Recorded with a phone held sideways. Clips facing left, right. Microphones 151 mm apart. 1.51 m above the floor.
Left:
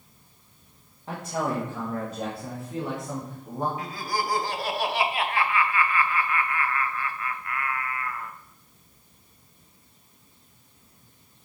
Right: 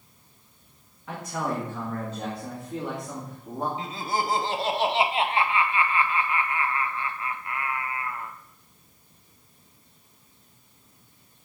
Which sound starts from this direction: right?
Laughter, at 3.8 s.